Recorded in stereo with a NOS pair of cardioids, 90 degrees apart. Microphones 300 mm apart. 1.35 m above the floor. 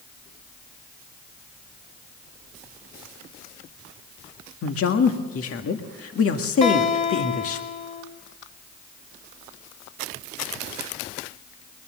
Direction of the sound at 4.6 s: 50° left.